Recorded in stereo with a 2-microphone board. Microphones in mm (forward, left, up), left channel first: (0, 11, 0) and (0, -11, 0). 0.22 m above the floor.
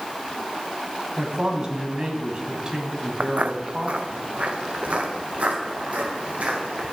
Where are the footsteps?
60° right (ahead or behind), 0.6 m; by 6.9 s 65° right (ahead or behind), 4.5 m.